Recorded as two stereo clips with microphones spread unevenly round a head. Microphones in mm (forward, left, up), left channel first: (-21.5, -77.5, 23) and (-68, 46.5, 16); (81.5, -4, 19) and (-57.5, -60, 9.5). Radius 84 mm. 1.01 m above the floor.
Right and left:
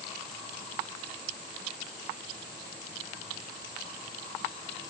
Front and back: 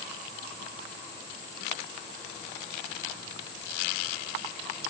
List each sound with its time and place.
Only background noise.